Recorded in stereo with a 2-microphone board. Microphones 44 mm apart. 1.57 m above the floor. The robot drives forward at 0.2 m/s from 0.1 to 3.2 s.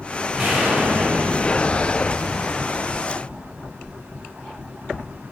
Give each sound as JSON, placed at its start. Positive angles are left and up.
{"t": 0.4, "sound": "an explosion", "side_deg": -15, "distance_m": 1.7}